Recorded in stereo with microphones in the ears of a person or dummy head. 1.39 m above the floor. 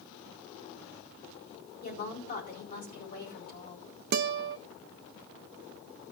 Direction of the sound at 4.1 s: 55° right (ahead or behind).